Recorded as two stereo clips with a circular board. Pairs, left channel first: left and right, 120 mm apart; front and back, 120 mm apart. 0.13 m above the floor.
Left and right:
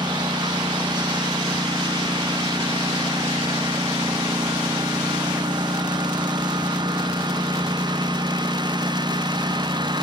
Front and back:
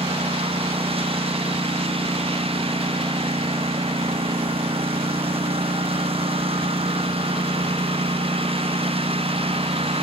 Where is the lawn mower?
140° right.